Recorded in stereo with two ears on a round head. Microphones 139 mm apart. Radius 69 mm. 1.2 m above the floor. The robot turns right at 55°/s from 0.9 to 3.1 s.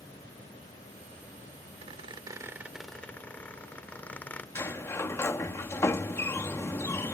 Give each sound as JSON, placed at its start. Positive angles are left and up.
{"t": 1.8, "sound": "a squeak", "azimuth_deg": -60}
{"t": 4.5, "sound": "a sliding door", "side_deg": 15}